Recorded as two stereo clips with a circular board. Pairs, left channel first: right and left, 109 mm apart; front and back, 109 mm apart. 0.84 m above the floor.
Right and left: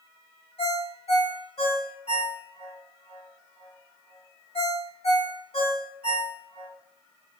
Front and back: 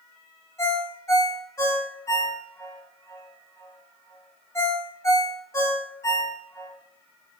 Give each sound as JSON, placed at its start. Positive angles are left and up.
{"t": 0.6, "sound": "a ringtone", "azimuth_deg": -65, "distance_m": 1.3}